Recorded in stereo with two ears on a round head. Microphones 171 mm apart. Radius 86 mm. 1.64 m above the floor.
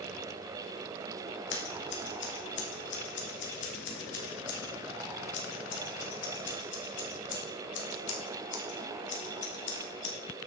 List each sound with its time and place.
1.5 s scissors: 65° left (ahead or behind), 1.8 m